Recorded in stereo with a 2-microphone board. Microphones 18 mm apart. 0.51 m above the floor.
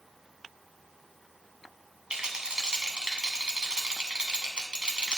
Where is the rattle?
75° right (ahead or behind), 1.2 m.